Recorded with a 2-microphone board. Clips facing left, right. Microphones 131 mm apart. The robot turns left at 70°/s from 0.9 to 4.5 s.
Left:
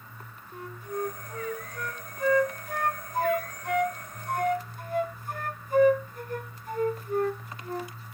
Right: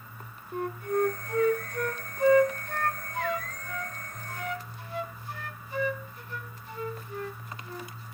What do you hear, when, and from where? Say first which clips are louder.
0.5 s a flute: right 7 dB; 60° right (ahead or behind), 0.5 m; by 7.9 s 45° left (ahead or behind), 0.5 m